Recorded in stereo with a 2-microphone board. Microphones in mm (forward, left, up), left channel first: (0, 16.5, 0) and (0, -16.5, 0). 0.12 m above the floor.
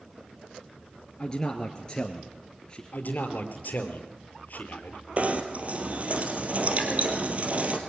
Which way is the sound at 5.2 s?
45° right (ahead or behind).